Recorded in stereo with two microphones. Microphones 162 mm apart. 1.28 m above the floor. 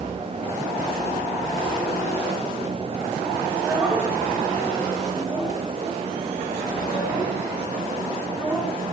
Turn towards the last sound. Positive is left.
turn(degrees=5)  # may be behind; listen again after turning